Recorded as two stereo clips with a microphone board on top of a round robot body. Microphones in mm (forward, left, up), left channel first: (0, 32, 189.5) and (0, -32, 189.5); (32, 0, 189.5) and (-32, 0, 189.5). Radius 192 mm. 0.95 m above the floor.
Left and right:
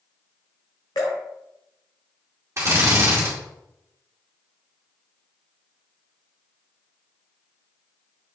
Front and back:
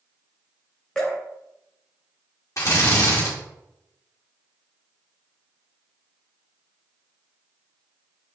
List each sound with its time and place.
0.9 s dripping: 75° left, 0.7 m
2.6 s a drill: 40° right, 2 m